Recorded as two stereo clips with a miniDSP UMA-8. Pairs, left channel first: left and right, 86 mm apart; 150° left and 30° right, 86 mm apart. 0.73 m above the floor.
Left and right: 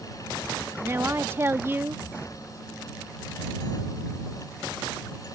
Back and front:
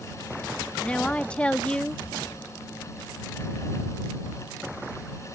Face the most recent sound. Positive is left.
turn(degrees=-140)